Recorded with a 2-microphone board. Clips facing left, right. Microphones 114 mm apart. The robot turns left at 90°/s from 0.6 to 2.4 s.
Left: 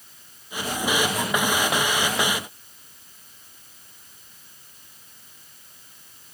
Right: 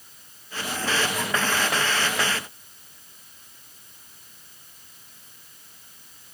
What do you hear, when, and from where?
Only background noise.